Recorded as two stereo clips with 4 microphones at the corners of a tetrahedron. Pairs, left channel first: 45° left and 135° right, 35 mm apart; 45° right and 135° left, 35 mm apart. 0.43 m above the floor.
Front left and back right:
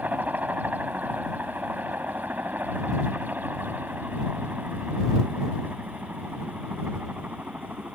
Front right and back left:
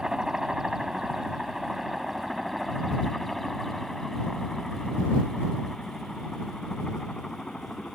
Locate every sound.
0.0 s a helicopter: 155° right; by 7.9 s 105° right